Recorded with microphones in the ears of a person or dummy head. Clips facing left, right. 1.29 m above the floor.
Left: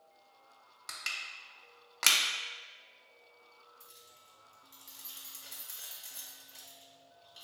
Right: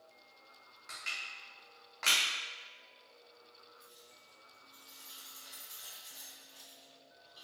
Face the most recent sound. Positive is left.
turn(degrees=45)  # may be behind; listen again after turning